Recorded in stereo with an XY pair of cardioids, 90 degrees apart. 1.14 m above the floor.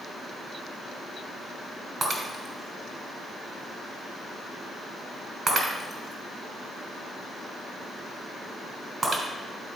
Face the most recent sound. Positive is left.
turn(degrees=-45)